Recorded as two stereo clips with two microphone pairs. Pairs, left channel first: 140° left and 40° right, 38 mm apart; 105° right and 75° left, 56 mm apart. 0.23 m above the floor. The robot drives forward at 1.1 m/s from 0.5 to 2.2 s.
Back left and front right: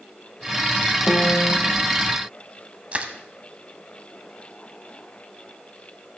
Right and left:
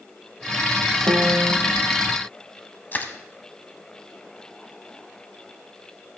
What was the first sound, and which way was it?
A piano, 95° left.